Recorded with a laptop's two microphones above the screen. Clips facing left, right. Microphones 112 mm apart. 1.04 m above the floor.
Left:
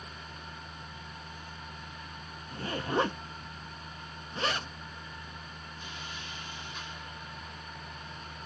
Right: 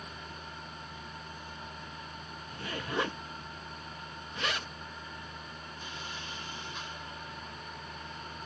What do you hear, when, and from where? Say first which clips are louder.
0.0 s a machine running: right 1 dB; 30° right (ahead or behind), 1.1 m
2.5 s a zipper: left 5 dB; 35° left (ahead or behind), 0.5 m